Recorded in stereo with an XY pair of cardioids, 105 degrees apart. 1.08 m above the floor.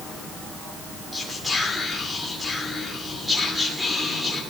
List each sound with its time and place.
1.1 s whispering: 5° left, 3 m